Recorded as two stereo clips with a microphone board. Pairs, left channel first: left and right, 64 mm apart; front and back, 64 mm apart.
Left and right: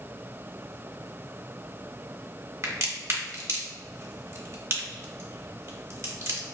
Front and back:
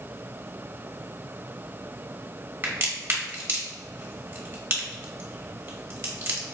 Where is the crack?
130° right, 0.9 m.